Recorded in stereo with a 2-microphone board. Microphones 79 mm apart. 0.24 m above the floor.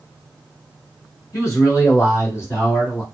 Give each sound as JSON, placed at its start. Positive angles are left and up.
{"t": 1.3, "sound": "a man speaking", "side_deg": 40, "distance_m": 1.4}